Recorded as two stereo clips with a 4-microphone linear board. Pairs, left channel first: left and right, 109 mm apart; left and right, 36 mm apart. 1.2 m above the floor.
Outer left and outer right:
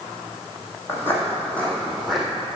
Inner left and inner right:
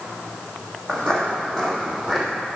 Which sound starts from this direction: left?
Footsteps, at 0.9 s.